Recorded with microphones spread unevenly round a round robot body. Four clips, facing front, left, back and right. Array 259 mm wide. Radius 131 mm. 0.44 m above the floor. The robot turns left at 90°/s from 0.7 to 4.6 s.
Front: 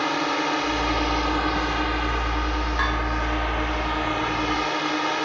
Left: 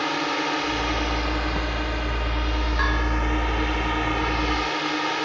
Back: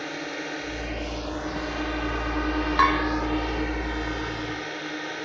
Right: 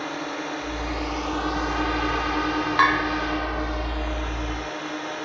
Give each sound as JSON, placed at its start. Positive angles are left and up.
{"t": 0.0, "sound": "a drone", "azimuth_deg": 45}
{"t": 2.8, "sound": "a bell", "azimuth_deg": -170}